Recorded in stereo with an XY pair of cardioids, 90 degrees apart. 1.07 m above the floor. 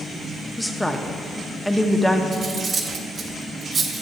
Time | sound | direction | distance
0.6 | a woman speaking | 5° left | 0.7 m
2.3 | cutlery clinking | 50° right | 1.0 m